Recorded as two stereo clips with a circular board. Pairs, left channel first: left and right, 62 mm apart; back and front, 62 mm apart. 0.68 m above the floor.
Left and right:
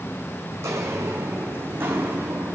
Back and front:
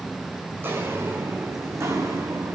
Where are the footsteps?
55° right, 2.5 m; by 2.6 s 30° right, 3 m.